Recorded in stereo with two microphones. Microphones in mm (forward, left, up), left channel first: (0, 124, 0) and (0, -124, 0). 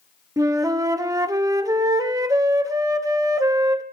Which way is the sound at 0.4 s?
15° right (ahead or behind).